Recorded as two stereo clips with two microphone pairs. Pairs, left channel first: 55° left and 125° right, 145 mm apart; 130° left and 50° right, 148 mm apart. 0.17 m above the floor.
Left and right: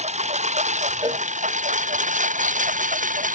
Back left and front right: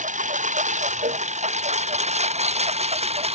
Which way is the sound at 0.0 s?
85° right.